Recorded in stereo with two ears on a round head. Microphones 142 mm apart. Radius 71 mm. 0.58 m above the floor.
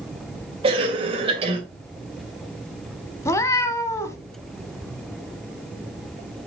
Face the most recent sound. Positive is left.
turn(degrees=20)  # may be behind; listen again after turning